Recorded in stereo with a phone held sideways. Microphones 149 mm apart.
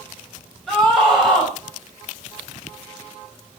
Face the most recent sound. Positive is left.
turn(degrees=0)  # may be behind; listen again after turning